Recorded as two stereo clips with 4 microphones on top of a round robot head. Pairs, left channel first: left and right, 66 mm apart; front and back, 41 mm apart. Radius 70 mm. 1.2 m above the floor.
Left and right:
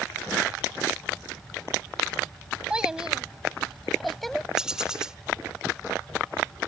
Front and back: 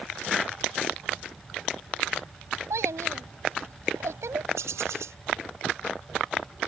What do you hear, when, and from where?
2.7 s a child speaking: 170° right; by 4.5 s 175° left
4.6 s a bird: 170° right